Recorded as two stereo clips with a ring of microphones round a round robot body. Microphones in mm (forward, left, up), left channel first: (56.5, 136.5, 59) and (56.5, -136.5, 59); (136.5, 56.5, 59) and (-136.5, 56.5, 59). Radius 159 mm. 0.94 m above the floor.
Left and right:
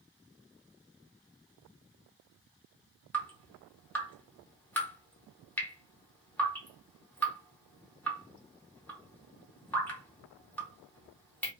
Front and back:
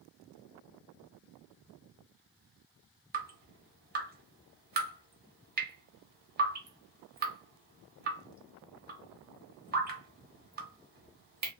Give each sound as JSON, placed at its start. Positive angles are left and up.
{"t": 3.1, "sound": "dripping", "azimuth_deg": 170, "distance_m": 1.0}